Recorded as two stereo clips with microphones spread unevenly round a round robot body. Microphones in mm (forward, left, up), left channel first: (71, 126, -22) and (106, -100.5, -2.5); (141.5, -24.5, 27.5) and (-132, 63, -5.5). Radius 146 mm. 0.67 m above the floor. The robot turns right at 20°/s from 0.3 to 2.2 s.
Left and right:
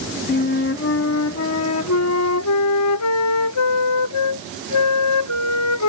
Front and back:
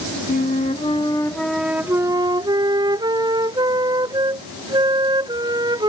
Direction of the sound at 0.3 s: 50° left.